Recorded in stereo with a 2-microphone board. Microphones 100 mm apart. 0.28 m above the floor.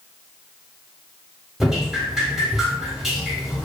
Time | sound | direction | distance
1.6 | dripping | 5° right (ahead or behind) | 0.8 m